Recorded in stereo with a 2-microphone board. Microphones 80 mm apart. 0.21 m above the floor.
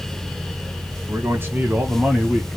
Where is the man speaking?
35° right (ahead or behind), 1.5 m; by 2.6 s centre (ahead or behind), 1.6 m.